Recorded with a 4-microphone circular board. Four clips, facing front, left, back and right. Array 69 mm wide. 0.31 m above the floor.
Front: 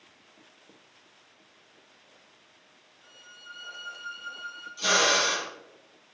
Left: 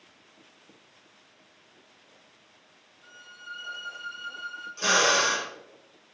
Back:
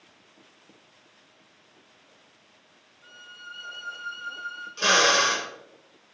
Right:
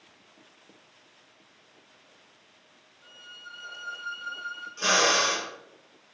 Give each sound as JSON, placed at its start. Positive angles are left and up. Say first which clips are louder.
{"t": 3.0, "sound": "a violin", "louder": "left 2 dB, back 5 dB", "azimuth_deg": -125, "distance_m": 3.5}
{"t": 4.8, "sound": "a drill", "louder": "left 1 dB, back 3 dB", "azimuth_deg": -165, "distance_m": 3.5}